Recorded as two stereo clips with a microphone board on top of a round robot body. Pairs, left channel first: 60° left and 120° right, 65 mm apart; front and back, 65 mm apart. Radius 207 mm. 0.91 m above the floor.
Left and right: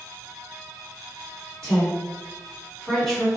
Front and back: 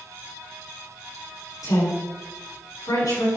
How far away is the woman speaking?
About 3 m.